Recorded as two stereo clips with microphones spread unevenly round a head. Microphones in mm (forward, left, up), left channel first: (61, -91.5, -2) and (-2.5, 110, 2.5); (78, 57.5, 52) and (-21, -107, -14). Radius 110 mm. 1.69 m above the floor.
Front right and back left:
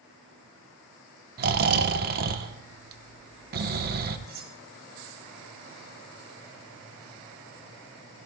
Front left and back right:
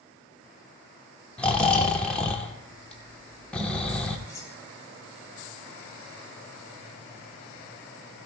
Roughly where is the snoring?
Behind left.